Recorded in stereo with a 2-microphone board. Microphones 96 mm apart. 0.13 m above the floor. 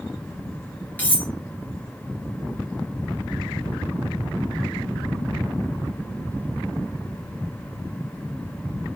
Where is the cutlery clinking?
20° left (ahead or behind), 1.4 m.